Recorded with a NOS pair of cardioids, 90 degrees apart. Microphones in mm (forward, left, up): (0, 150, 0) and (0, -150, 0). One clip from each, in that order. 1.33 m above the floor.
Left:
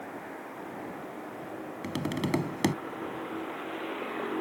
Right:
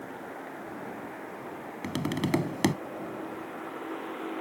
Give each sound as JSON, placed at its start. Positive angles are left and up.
{"t": 1.8, "sound": "tapping", "azimuth_deg": -10}